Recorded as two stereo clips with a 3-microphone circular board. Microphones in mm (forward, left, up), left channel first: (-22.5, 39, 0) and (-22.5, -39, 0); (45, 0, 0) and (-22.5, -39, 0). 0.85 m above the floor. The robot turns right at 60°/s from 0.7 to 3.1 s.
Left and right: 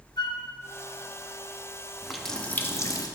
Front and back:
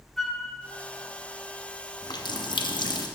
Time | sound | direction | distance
0.2 | a flute | 115° left | 0.6 m
2.0 | a running tap | 5° right | 0.5 m